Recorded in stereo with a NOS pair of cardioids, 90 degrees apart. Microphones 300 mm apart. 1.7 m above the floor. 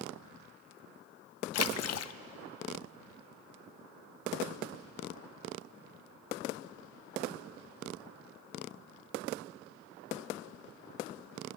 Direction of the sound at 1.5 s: 55° left.